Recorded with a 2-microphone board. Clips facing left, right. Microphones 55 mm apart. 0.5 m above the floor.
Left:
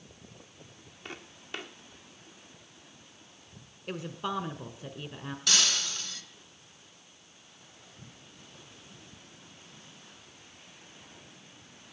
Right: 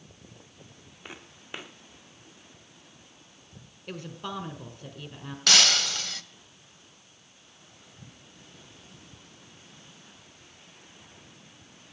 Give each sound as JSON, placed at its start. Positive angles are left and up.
{"t": 1.1, "sound": "footsteps", "side_deg": -15, "distance_m": 2.0}
{"t": 3.9, "sound": "a woman speaking", "side_deg": 10, "distance_m": 1.8}
{"t": 5.5, "sound": "breaking glass", "side_deg": -70, "distance_m": 1.1}